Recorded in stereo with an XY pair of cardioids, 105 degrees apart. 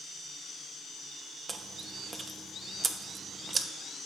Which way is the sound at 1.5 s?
30° right.